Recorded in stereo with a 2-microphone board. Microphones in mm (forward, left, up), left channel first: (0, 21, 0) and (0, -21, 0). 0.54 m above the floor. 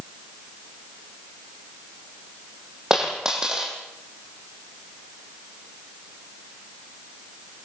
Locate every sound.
2.9 s a dropped coin: 15° right (ahead or behind), 5.5 m